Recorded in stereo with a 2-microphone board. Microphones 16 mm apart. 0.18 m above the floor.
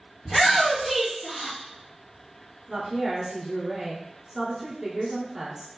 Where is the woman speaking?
40° right (ahead or behind), 1.8 m.